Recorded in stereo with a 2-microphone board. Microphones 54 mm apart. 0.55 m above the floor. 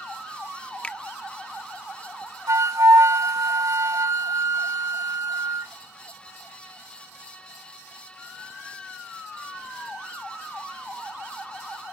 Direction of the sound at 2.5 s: 80° right.